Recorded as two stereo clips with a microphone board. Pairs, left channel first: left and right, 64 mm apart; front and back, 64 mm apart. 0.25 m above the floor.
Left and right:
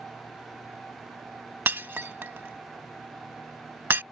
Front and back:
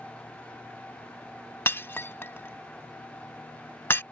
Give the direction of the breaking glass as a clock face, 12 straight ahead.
1 o'clock.